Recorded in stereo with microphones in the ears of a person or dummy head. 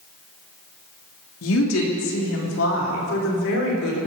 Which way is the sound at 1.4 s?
80° left.